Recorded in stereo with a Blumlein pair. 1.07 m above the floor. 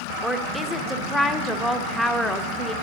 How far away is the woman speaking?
About 0.5 m.